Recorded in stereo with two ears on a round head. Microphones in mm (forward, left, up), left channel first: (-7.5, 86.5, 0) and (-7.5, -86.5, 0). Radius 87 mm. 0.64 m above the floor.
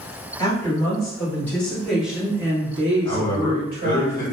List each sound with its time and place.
0.4 s a woman speaking: 20° left (ahead or behind), 1.7 m; by 4.0 s 50° right (ahead or behind), 1.1 m
3.0 s a man speaking: 15° left (ahead or behind), 1.6 m